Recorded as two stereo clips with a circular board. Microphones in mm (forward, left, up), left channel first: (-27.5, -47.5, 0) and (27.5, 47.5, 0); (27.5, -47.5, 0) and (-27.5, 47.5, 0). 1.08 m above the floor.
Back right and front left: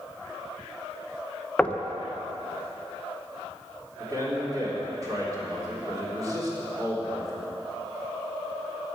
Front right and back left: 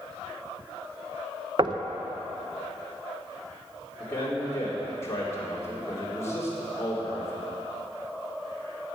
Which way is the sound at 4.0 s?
5° left.